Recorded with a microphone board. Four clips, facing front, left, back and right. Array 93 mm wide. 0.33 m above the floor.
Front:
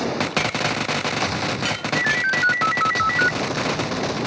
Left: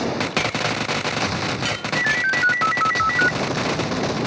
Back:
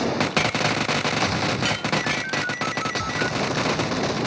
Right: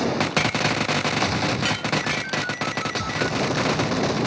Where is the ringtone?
45° left.